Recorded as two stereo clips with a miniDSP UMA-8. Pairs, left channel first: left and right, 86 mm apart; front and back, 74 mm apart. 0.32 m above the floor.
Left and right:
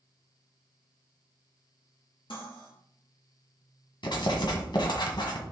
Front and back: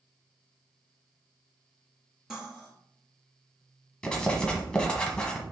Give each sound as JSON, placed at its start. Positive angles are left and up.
{"t": 2.3, "sound": "cutlery clinking", "azimuth_deg": 95, "distance_m": 3.0}
{"t": 4.0, "sound": "writing", "azimuth_deg": 75, "distance_m": 1.5}